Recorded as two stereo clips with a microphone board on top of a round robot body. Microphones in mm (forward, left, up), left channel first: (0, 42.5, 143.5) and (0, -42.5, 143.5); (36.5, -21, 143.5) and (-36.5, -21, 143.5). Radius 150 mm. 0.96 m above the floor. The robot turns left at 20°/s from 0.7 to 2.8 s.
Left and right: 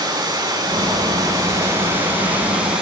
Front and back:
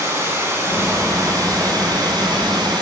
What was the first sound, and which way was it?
Running water, 130° right.